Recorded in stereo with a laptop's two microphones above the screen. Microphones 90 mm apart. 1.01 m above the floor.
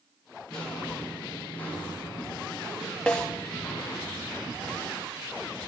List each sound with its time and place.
0.5 s footsteps: 10° left (ahead or behind), 1.9 m; by 4.1 s 30° left (ahead or behind), 4 m
3.1 s a snare drum: 15° left (ahead or behind), 1.7 m